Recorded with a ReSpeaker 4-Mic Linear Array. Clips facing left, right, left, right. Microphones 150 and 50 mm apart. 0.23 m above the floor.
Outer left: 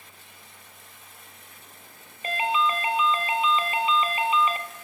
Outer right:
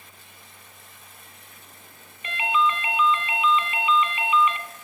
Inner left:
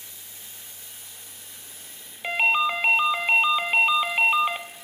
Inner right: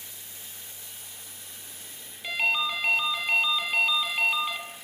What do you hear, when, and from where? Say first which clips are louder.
2.2 s a ringtone: outer right 1 dB, inner left 5 dB; 35° left (ahead or behind), 0.7 m